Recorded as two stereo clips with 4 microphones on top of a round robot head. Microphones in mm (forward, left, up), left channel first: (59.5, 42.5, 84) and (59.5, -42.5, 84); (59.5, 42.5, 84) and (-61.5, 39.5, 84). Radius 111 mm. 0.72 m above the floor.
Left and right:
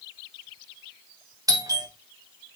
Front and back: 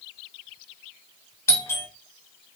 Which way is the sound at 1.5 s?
60° right.